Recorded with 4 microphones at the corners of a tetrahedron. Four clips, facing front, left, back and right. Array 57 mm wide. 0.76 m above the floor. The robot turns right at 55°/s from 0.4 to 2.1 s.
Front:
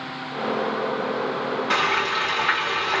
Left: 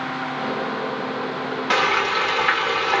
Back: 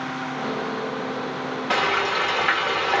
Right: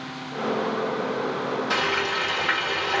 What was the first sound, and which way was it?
Frying, 100° left.